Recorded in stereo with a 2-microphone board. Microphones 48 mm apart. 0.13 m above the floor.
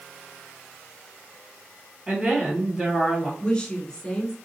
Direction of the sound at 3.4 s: 15° left (ahead or behind).